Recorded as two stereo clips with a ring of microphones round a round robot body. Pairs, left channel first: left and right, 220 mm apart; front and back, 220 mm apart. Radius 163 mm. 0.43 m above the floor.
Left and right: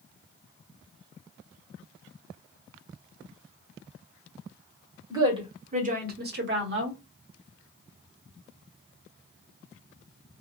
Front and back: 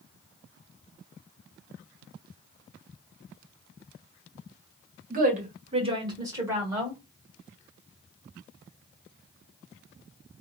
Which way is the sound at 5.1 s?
160° right.